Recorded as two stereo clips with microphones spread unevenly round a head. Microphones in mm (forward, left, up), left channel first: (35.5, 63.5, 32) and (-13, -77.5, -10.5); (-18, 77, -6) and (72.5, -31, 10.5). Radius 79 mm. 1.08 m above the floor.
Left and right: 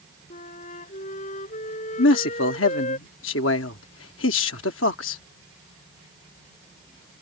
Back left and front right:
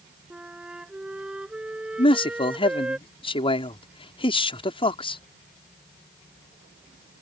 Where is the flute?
30° left.